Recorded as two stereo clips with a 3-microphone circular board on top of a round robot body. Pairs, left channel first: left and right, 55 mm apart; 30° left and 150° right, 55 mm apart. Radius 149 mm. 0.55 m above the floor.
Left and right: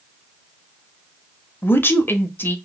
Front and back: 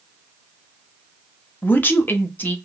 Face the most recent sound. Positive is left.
turn(degrees=70)